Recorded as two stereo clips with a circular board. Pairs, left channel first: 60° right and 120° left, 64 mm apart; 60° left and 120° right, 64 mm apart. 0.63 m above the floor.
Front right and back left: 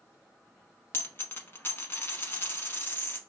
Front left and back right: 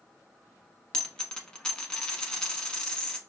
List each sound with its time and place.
0.9 s a dropped coin: 15° right, 0.9 m